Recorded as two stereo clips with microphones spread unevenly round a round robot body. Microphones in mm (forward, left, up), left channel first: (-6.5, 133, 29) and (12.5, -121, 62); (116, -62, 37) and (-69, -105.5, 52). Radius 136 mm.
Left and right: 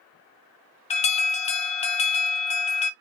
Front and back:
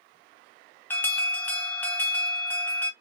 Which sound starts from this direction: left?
An alarm, at 0.9 s.